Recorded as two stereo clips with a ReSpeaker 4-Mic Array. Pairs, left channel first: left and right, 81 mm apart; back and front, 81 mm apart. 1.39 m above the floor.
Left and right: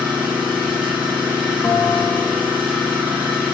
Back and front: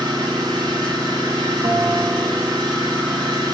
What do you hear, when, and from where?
0.0 s an engine running: 20° right, 7 m
1.6 s a bell: 25° left, 1.8 m